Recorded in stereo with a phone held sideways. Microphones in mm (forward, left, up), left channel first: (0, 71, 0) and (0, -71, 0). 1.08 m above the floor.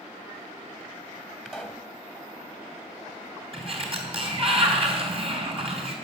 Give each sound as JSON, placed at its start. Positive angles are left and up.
{"t": 1.4, "sound": "a pop", "side_deg": -5, "distance_m": 1.4}
{"t": 3.5, "sound": "a sliding door", "side_deg": -45, "distance_m": 2.5}